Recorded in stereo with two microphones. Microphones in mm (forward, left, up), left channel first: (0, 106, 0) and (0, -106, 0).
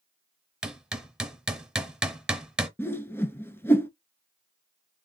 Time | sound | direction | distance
0.6 | hammering | 5° right (ahead or behind) | 0.9 m
2.8 | a whoosh | 10° left (ahead or behind) | 0.7 m